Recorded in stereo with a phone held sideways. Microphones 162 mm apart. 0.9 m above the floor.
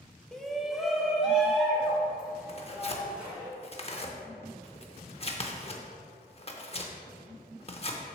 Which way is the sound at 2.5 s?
40° left (ahead or behind).